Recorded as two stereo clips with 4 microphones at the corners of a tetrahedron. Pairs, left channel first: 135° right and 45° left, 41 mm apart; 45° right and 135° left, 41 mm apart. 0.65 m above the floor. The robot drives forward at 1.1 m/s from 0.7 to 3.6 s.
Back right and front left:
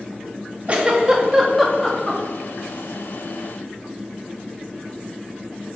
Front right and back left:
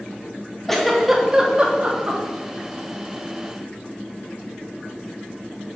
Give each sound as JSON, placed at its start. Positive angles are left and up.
{"t": 0.7, "sound": "a giggle", "azimuth_deg": 35, "distance_m": 1.3}